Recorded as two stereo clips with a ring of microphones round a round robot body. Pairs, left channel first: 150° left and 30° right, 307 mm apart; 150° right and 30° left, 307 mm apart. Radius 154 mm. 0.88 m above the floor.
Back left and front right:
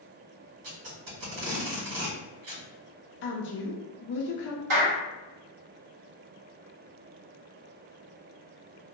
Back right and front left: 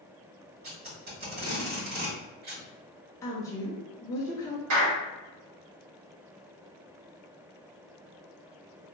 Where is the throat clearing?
No throat clearing in this recording.